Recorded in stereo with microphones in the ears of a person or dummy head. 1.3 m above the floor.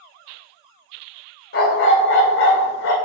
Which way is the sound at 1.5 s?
60° left (ahead or behind).